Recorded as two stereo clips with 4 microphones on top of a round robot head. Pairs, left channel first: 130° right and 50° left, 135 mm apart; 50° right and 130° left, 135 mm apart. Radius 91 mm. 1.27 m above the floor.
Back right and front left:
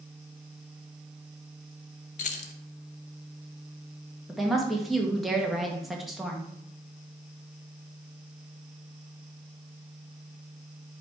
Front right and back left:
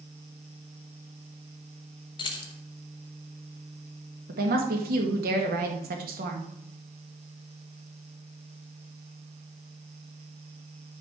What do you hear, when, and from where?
2.2 s keys jangling: 100° right, 0.6 m
4.3 s a woman speaking: 140° left, 1.7 m